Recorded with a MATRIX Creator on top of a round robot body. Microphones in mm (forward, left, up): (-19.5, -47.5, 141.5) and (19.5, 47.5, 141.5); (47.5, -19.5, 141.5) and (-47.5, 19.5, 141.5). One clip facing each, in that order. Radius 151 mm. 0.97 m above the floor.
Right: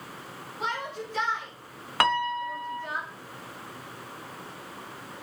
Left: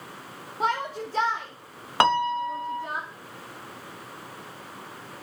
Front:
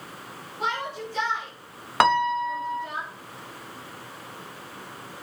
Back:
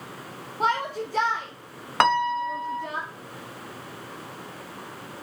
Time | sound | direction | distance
0.6 | a shout | 110° left | 3 m
2.0 | a piano | 60° left | 0.8 m